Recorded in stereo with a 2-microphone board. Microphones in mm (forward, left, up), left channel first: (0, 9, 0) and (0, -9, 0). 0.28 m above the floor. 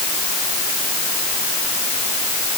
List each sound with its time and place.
Only background noise.